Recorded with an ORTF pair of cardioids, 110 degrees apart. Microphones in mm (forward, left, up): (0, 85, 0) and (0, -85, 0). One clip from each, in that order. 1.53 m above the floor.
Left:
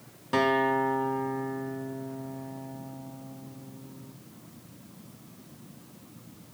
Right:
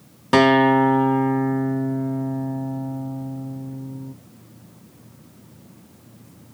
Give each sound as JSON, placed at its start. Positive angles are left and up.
{"t": 0.3, "sound": "a guitar", "azimuth_deg": -55, "distance_m": 0.6}